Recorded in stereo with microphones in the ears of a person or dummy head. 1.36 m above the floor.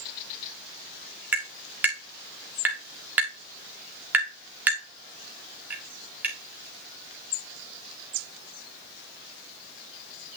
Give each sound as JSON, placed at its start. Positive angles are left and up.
{"t": 1.3, "sound": "tapping", "side_deg": -10, "distance_m": 1.9}